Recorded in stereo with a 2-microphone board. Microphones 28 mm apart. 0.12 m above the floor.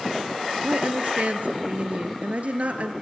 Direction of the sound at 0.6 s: 55° right (ahead or behind).